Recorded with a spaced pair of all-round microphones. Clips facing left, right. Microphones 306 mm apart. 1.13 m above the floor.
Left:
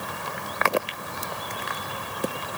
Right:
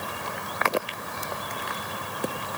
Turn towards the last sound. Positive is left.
No sound to turn to.